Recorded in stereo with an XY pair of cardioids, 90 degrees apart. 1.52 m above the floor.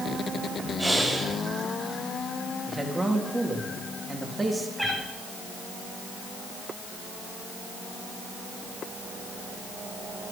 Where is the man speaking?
10° right, 3.5 m.